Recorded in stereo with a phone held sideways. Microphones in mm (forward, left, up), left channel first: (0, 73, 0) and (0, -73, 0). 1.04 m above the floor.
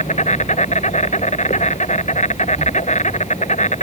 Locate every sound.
0.0 s an insect: 55° left (ahead or behind)